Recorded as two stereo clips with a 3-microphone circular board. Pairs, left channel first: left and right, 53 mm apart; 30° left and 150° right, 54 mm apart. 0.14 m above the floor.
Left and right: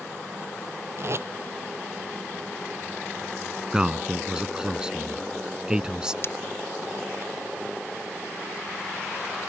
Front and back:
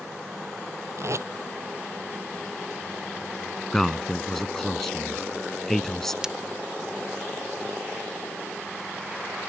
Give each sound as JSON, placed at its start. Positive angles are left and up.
{"t": 1.0, "sound": "tape being pulled", "azimuth_deg": -125}
{"t": 3.7, "sound": "a man speaking", "azimuth_deg": -45}
{"t": 6.2, "sound": "breaking glass", "azimuth_deg": 135}